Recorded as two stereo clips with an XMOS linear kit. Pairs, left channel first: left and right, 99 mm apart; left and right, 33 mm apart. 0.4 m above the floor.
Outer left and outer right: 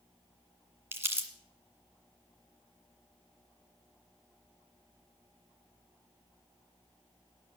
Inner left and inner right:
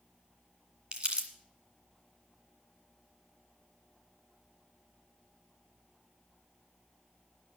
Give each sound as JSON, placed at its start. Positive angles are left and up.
{"t": 0.9, "sound": "crumpling", "side_deg": -25, "distance_m": 1.9}